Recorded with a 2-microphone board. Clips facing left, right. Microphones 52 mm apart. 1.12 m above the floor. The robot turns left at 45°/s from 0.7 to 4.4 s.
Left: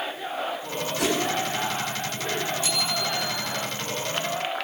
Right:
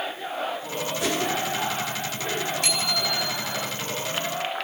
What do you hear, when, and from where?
1.0 s a whoosh: 80° left, 8 m; by 1.2 s 85° left, 8 m
2.6 s a bicycle bell: 60° right, 6.5 m; by 3.5 s 100° right, 6.5 m